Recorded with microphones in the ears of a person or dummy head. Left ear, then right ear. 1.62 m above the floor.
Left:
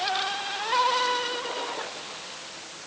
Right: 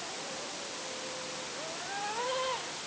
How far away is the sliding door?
I don't hear a sliding door.